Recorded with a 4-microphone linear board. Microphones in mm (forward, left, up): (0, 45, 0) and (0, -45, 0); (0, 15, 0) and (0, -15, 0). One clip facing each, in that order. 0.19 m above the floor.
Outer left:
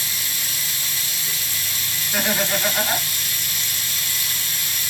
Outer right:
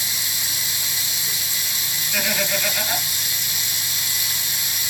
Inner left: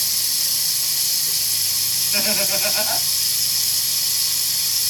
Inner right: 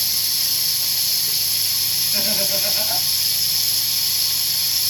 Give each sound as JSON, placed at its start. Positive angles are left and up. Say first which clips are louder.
{"t": 0.0, "sound": "running water", "louder": "even, inner right 1 dB", "side_deg": -15, "distance_m": 1.1}
{"t": 2.1, "sound": "laughter", "louder": "outer left 2 dB, inner left 2 dB", "side_deg": 35, "distance_m": 1.7}